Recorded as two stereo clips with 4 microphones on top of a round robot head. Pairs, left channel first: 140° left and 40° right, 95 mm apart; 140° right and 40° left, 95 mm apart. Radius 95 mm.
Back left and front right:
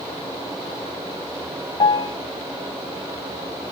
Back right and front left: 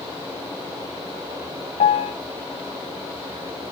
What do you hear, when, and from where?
1.8 s a piano: 170° right, 0.6 m